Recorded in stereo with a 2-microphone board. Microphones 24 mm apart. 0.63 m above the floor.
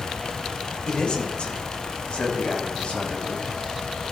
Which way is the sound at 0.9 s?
40° left (ahead or behind).